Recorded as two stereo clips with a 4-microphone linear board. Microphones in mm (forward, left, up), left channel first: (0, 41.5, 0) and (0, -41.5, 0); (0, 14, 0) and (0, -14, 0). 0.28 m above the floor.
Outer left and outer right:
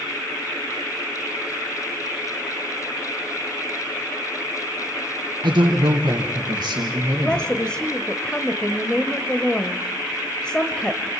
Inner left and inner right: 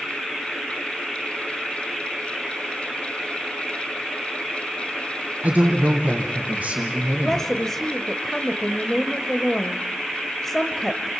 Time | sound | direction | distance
5.4 | a man speaking | 60° right (ahead or behind) | 2 m
7.2 | a woman speaking | 10° left (ahead or behind) | 1.0 m